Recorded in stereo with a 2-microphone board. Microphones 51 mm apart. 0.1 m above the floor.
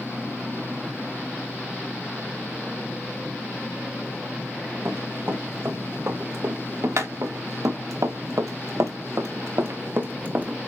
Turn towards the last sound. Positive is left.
turn(degrees=-35)  # may be behind; listen again after turning